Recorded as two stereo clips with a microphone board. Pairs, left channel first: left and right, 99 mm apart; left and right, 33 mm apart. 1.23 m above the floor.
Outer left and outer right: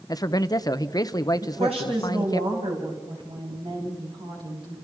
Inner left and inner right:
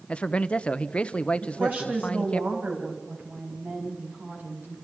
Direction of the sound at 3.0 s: 60° right (ahead or behind).